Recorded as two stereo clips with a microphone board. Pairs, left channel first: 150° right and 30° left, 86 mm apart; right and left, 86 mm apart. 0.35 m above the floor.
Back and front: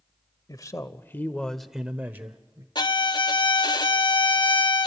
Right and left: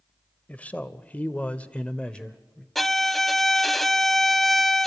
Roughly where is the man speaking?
Behind right.